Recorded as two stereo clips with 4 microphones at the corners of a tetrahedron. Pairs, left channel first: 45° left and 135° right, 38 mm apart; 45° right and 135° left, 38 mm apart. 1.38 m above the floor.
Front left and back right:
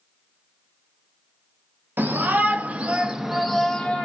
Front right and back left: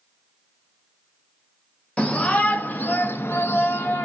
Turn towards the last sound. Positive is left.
turn(degrees=-20)